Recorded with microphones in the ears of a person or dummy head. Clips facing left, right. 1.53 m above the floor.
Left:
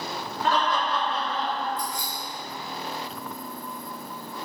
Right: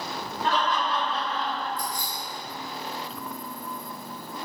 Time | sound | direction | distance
0.4 | laughter | 75° left (ahead or behind) | 1.0 m
1.8 | keys jangling | 45° right (ahead or behind) | 1.1 m